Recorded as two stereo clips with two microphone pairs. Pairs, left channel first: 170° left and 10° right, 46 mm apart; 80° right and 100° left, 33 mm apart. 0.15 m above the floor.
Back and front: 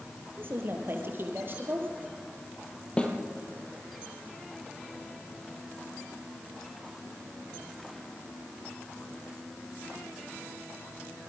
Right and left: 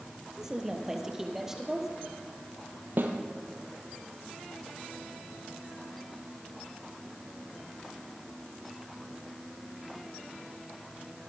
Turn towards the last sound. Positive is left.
turn(degrees=100)